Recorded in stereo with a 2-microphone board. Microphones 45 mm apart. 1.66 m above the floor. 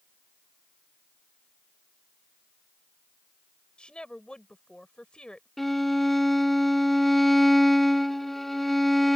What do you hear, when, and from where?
3.8 s a woman speaking: 20° left (ahead or behind)
5.6 s a violin: 5° left (ahead or behind)